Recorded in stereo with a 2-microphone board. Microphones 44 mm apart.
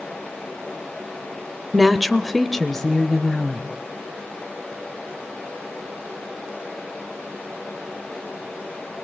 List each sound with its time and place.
1.7 s a woman speaking: 5° right (ahead or behind), 0.8 m; by 3.7 s 10° left (ahead or behind), 1.5 m